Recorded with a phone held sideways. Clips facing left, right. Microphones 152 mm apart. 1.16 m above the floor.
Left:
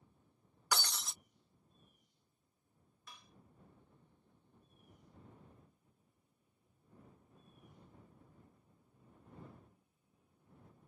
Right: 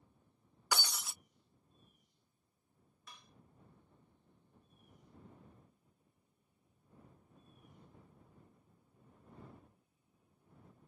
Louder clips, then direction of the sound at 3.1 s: Even; centre (ahead or behind).